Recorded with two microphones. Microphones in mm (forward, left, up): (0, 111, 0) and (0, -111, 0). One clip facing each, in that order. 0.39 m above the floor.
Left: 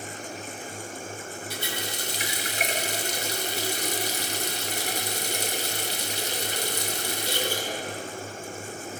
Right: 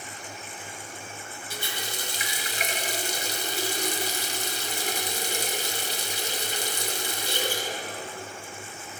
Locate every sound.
1.5 s a running tap: 65° left (ahead or behind), 1.5 m